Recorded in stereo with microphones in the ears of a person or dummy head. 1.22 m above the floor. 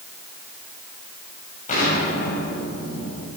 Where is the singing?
No singing in this recording.